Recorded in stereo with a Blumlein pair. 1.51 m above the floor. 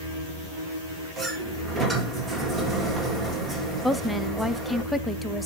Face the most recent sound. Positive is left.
turn(degrees=0)